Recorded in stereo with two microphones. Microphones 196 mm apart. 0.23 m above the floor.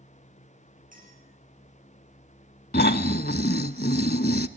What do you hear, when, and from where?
0.9 s a clink: 45° right (ahead or behind), 8 m
2.7 s snoring: 55° left (ahead or behind), 0.9 m